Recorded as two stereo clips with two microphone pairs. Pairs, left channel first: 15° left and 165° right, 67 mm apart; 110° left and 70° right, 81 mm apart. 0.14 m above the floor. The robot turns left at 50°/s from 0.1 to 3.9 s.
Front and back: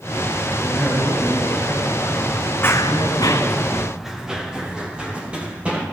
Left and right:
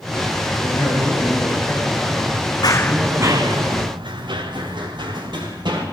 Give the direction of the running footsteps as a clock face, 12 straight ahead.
10 o'clock.